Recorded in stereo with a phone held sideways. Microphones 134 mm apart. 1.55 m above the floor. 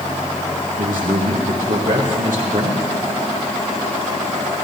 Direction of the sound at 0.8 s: 85° right.